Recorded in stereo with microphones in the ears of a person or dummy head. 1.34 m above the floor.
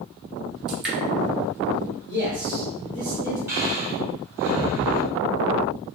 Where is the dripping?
10° right (ahead or behind), 1.4 m.